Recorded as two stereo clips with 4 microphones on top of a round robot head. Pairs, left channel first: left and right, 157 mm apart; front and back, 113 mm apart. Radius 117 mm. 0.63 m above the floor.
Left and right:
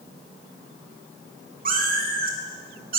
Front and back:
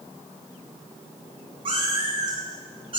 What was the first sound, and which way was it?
A cat meowing, 120° right.